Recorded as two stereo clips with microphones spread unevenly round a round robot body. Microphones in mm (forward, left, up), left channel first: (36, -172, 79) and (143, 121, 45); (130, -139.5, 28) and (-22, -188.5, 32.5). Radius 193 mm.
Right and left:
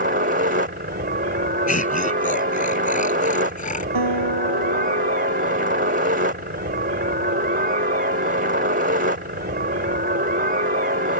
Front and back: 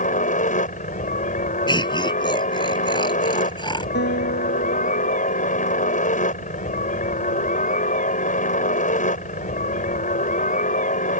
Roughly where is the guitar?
Ahead left.